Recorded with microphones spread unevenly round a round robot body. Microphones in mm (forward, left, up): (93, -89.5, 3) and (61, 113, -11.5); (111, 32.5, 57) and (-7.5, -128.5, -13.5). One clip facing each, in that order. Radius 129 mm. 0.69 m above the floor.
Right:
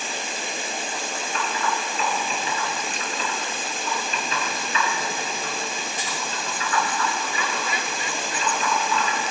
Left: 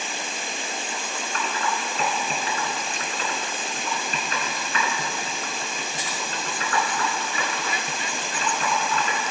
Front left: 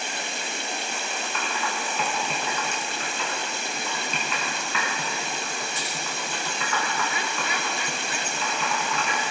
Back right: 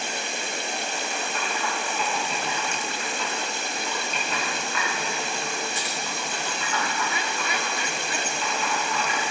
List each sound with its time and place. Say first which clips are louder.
1.3 s typing on a keyboard: right 1 dB, front left 1 dB; 55° left, 3.5 m